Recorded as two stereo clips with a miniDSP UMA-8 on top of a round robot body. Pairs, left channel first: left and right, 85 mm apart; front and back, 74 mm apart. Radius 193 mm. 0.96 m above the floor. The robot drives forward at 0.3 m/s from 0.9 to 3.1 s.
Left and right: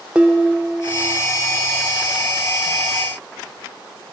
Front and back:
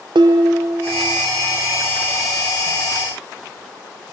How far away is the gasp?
I don't hear a gasp.